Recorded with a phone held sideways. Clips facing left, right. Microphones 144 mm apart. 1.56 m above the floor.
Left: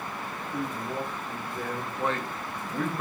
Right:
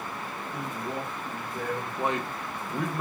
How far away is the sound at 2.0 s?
About 0.5 m.